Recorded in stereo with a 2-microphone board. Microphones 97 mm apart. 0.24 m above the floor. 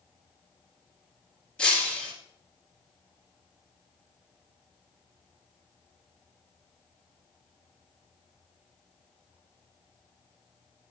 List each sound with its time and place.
1.6 s breaking glass: 10° left (ahead or behind), 2.5 m